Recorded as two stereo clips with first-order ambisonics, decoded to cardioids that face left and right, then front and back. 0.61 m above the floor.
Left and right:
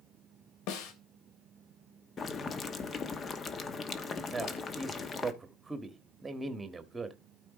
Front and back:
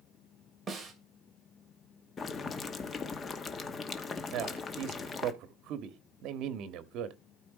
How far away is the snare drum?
About 2.5 m.